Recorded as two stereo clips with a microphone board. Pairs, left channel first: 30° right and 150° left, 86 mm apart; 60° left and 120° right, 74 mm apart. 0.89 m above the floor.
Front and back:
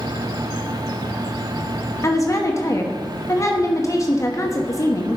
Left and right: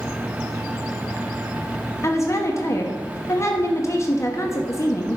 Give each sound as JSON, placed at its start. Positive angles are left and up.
{"t": 2.0, "sound": "a woman speaking", "azimuth_deg": 20, "distance_m": 1.1}